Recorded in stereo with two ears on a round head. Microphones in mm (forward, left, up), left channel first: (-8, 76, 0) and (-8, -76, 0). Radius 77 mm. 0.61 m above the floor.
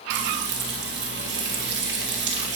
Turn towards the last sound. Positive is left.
turn(degrees=-70)  # may be behind; listen again after turning